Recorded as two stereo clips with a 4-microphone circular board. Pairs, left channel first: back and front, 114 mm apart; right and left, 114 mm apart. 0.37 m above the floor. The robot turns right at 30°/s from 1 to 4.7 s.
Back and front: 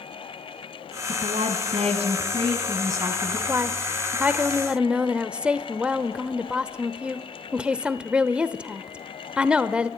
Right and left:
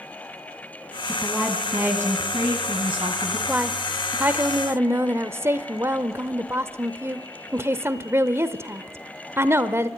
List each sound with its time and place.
1.1 s a woman speaking: 5° right, 2.5 m; by 3.4 s 65° left, 2.5 m
3.5 s a woman speaking: 30° left, 0.8 m; by 9.9 s 65° left, 0.8 m